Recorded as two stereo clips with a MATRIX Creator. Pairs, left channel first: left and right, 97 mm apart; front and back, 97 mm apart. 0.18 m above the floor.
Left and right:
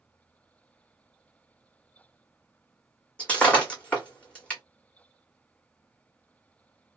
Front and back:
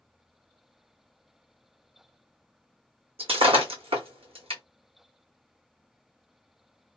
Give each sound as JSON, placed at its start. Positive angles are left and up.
{"t": 3.2, "sound": "breaking glass", "azimuth_deg": 165, "distance_m": 1.3}